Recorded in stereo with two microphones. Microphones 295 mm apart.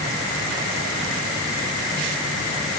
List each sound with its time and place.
Only background noise.